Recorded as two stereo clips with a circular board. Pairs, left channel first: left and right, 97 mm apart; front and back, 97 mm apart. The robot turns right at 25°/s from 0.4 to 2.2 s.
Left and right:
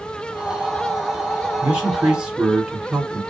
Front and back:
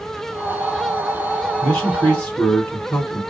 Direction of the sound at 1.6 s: 50° right.